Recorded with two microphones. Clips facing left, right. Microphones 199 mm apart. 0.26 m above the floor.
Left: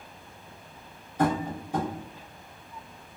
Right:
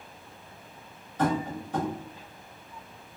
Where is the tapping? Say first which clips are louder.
Left 1 dB; 10° left (ahead or behind), 1.3 m.